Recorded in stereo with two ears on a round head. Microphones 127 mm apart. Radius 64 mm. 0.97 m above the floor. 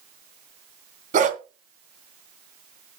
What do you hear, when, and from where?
1.1 s a dog barking: 55° right (ahead or behind), 2.5 m